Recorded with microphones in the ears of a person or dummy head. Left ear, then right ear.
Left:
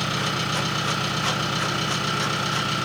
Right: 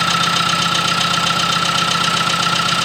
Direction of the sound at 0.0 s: 60° right (ahead or behind).